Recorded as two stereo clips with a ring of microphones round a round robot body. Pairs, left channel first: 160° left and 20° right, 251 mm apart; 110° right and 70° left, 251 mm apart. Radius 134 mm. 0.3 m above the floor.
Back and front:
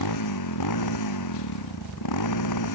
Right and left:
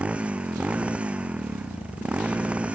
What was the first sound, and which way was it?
A motorcycle, 155° left.